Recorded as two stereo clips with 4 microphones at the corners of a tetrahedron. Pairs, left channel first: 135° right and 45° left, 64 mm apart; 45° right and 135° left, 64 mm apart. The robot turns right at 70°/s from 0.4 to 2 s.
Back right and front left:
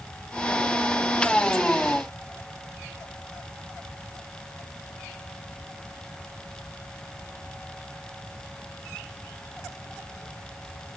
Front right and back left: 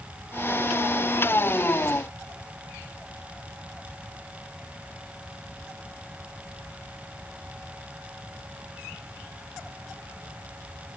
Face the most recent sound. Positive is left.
No sound to turn to.